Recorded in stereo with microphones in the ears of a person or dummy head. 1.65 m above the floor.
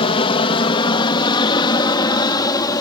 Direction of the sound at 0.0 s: 30° left (ahead or behind).